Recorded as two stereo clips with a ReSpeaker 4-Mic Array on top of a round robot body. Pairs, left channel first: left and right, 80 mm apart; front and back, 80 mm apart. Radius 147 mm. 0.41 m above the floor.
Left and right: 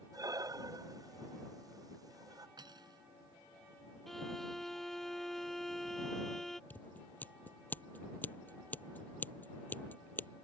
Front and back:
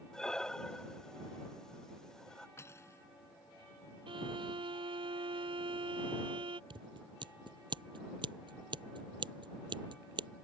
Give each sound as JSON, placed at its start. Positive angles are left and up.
{"t": 0.1, "sound": "breathing", "azimuth_deg": -80}
{"t": 2.6, "sound": "cutlery clinking", "azimuth_deg": -60}
{"t": 4.1, "sound": "a violin", "azimuth_deg": 175}
{"t": 6.7, "sound": "scissors", "azimuth_deg": 160}